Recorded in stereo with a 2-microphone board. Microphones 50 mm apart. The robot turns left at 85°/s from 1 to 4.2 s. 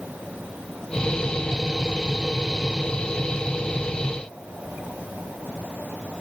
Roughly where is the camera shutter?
No camera shutter in this recording.